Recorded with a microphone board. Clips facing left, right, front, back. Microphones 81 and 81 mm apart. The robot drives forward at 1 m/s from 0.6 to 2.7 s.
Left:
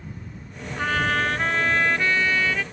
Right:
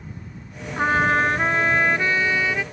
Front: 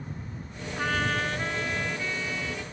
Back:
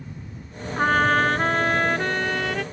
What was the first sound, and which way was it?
A trumpet, 145° right.